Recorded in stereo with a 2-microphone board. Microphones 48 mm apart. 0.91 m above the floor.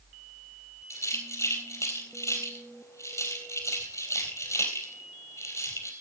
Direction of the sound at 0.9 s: 85° left.